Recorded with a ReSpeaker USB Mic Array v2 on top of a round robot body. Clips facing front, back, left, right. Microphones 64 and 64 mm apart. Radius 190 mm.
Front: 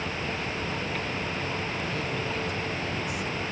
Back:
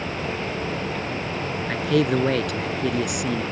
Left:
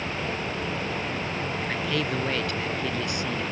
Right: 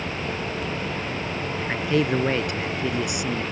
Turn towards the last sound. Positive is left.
turn(degrees=-165)